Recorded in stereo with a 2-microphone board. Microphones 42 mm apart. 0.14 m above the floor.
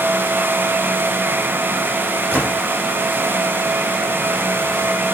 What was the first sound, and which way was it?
A gunshot, 40° right (ahead or behind).